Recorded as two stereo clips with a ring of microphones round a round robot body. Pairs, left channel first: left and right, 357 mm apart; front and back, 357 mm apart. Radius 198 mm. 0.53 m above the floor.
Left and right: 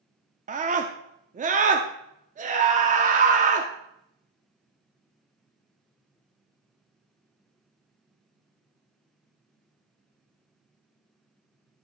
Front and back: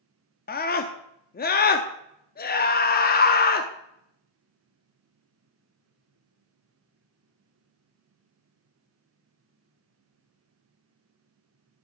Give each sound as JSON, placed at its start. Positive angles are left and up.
{"t": 0.5, "sound": "a scream", "azimuth_deg": -40, "distance_m": 0.7}